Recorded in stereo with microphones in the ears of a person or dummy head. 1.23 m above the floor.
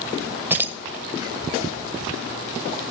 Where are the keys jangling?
10° right (ahead or behind), 0.7 m.